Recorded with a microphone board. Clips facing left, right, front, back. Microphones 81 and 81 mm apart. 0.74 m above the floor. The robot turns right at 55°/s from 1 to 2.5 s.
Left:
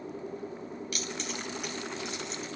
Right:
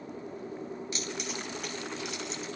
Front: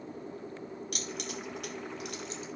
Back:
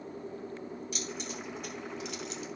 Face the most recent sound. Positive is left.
turn(degrees=55)